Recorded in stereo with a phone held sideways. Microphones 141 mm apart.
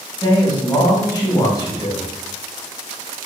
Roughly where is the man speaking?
Left.